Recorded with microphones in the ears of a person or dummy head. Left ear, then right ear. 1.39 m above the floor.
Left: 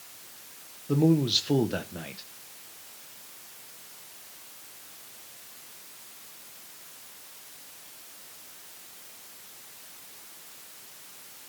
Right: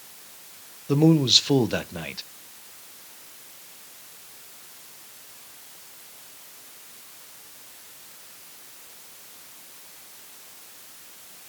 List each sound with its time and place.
0.9 s a man speaking: 20° right (ahead or behind), 0.7 m